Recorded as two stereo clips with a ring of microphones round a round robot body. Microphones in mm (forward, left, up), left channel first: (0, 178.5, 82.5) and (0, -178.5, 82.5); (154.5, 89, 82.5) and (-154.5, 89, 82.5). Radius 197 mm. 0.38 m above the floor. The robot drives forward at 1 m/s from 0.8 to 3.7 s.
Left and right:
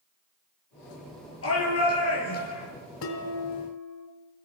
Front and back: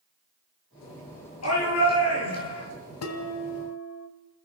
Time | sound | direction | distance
1.4 | a shout | 35° left | 8.5 m
3.0 | dishes clattering | 35° left | 3 m